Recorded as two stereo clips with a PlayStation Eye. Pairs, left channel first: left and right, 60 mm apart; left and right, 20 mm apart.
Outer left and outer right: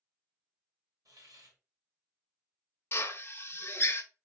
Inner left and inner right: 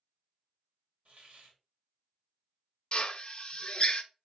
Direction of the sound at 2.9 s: 40° left (ahead or behind).